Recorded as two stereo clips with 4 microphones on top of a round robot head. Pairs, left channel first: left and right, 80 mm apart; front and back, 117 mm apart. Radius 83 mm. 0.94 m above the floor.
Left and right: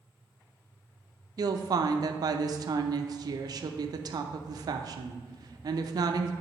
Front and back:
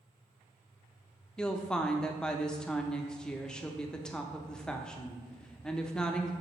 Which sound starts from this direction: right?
A woman speaking, at 1.4 s.